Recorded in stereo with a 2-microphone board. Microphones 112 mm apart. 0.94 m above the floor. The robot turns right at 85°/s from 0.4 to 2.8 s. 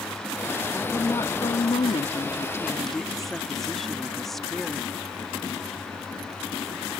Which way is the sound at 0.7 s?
Straight ahead.